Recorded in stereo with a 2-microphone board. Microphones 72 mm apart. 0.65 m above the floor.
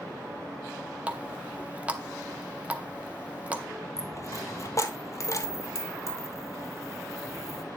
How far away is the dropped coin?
About 1.0 m.